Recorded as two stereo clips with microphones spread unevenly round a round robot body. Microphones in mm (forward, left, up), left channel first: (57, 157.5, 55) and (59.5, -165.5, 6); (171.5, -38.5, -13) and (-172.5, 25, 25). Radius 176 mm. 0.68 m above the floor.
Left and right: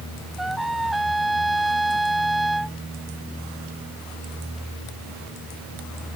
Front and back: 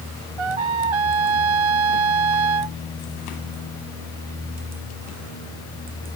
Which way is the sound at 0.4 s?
Straight behind.